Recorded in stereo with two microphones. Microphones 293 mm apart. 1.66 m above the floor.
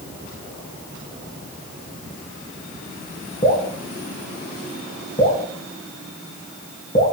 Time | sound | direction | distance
3.4 | dripping | 30° left (ahead or behind) | 2 m